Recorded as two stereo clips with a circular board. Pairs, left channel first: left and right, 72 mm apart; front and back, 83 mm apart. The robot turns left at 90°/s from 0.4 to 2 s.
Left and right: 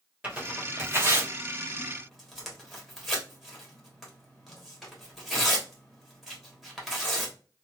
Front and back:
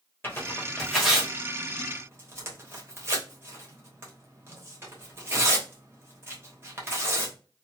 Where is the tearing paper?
30° right, 1.2 m; by 7.3 s 175° right, 1.2 m.